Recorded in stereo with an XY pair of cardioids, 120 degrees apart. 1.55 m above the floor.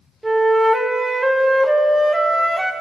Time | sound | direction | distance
0.2 | a flute | 10° right | 0.9 m